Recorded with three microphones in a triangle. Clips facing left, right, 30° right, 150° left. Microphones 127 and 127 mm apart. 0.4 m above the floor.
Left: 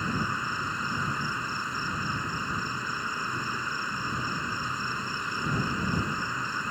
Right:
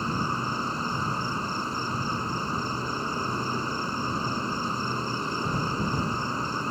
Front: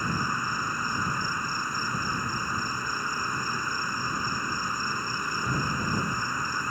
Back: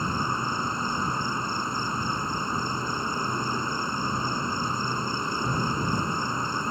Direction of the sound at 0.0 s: 145° right.